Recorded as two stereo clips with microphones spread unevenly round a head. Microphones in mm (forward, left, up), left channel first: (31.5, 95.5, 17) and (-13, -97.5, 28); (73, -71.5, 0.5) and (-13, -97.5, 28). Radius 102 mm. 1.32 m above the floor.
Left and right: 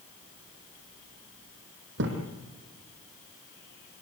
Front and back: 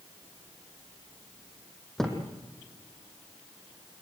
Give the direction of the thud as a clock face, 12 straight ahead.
2 o'clock.